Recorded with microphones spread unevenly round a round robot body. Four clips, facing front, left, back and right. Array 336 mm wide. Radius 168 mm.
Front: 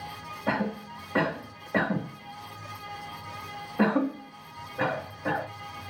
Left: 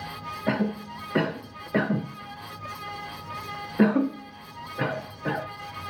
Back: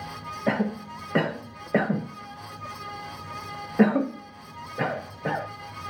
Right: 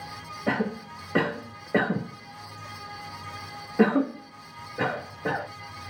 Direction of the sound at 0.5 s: 175° right.